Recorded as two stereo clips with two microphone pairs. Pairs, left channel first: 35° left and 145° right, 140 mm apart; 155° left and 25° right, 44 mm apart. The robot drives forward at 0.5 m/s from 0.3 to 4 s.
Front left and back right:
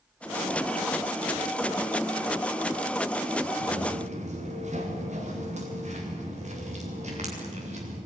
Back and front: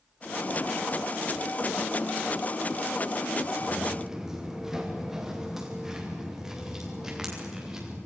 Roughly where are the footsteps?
Right.